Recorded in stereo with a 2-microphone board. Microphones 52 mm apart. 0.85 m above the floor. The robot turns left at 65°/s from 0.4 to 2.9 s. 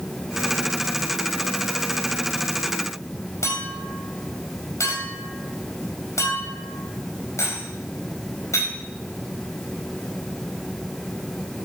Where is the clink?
65° left (ahead or behind), 4 m.